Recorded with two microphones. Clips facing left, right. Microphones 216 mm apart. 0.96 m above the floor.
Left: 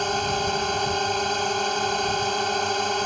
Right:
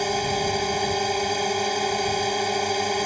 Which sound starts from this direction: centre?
A drone, at 0.0 s.